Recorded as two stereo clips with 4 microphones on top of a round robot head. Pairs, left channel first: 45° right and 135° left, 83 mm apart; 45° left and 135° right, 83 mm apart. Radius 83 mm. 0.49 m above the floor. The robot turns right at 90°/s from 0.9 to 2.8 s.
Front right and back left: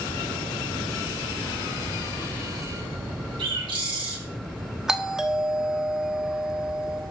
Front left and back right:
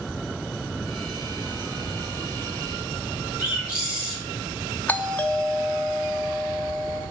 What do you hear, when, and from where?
3.4 s a bird: 150° left, 4 m
4.9 s a doorbell: 65° left, 1.1 m